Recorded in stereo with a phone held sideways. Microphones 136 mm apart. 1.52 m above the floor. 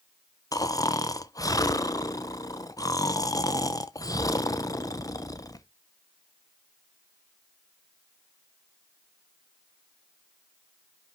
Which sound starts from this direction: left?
Snoring, at 0.5 s.